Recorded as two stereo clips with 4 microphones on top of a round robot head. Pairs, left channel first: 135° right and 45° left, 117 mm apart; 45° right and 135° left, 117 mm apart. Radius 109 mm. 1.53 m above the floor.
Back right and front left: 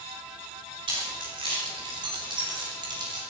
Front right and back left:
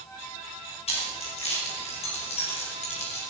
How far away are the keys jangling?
About 5.5 m.